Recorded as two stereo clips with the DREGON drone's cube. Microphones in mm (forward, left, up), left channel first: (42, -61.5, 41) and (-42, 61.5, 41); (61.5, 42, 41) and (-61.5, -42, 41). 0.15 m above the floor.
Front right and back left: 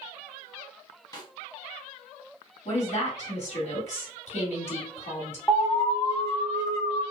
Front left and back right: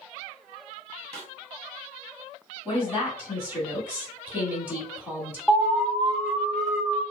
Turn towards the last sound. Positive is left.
turn(degrees=-45)